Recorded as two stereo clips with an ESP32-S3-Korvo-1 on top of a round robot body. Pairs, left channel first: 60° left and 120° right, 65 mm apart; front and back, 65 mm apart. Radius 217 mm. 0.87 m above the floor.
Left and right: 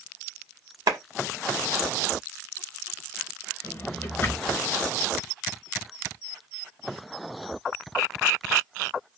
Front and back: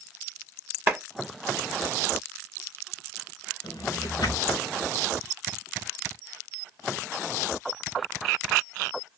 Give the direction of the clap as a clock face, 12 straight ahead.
4 o'clock.